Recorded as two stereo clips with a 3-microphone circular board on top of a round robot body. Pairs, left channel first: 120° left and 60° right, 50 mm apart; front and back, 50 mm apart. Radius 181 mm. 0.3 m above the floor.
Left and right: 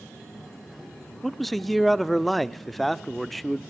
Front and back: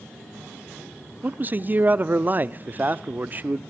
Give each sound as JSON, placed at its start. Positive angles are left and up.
{"t": 1.2, "sound": "a man speaking", "azimuth_deg": -150, "distance_m": 1.0}